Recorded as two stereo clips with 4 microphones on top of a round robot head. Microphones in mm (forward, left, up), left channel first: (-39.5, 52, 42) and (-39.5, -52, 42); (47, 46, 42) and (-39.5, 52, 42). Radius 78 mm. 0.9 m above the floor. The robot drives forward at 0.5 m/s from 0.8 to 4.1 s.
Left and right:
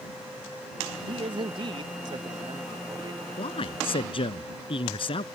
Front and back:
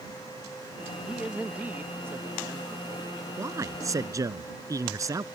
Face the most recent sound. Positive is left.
turn(degrees=125)